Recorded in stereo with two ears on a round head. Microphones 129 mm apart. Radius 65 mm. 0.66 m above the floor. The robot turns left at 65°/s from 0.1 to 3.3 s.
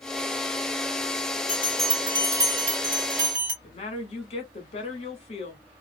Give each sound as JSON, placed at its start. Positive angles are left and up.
{"t": 1.5, "sound": "a bell", "azimuth_deg": 20, "distance_m": 1.6}
{"t": 3.6, "sound": "a woman speaking", "side_deg": 45, "distance_m": 1.2}